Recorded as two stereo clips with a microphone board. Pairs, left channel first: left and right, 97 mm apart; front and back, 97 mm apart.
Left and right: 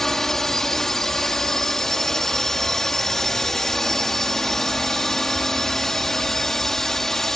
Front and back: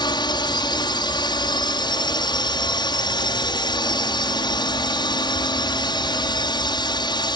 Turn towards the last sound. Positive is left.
turn(degrees=5)